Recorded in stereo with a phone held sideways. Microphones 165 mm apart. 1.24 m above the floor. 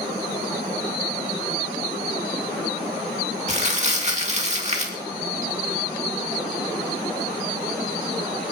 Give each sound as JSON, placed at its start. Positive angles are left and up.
{"t": 3.5, "sound": "crumpling", "side_deg": -40, "distance_m": 2.0}